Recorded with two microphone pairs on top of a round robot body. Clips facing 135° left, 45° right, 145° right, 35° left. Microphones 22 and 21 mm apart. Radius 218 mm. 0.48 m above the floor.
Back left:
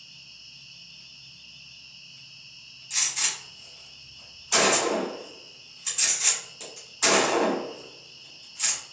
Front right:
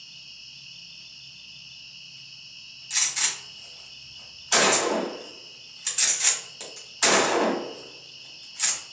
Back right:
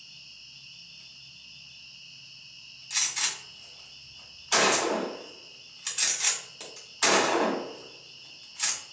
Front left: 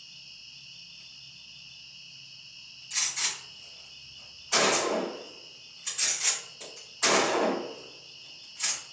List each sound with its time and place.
0.0 s an insect: 60° right, 0.9 m
2.9 s a gunshot: 105° right, 1.5 m